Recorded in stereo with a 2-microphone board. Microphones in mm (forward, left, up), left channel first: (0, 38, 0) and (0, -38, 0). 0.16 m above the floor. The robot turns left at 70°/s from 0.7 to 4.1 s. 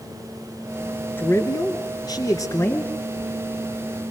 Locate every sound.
1.2 s a man speaking: 150° left, 2.5 m; by 2.9 s 25° left, 2.5 m